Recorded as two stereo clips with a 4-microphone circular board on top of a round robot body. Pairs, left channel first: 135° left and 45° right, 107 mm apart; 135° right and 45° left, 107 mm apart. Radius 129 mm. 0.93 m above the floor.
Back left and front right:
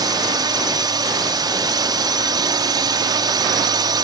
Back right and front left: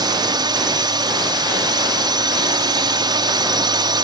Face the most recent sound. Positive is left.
turn(degrees=0)